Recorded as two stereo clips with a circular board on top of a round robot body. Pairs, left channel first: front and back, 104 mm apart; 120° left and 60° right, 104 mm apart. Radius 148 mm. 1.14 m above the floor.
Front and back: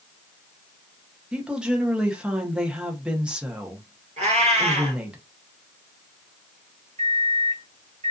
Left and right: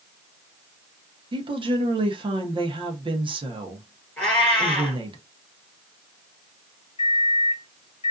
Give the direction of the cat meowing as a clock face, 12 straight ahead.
5 o'clock.